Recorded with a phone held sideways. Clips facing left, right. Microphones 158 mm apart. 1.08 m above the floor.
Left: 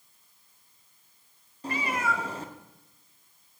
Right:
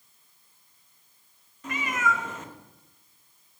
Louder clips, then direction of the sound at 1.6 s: Right 1 dB; 35° left (ahead or behind).